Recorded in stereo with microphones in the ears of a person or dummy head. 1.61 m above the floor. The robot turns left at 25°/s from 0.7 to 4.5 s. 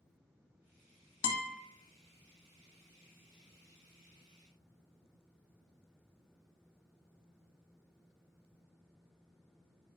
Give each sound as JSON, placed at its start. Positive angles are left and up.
{"t": 1.2, "sound": "a guitar", "side_deg": 85, "distance_m": 0.5}